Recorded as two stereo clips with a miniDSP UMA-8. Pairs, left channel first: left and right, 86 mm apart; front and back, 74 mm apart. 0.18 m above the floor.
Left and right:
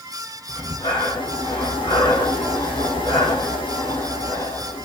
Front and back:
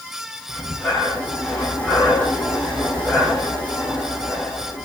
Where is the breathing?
75° left, 4 m.